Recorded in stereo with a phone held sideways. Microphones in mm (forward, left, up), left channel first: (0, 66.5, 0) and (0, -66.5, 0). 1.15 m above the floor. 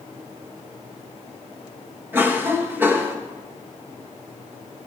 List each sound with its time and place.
2.1 s a cough: 15° right (ahead or behind), 1.1 m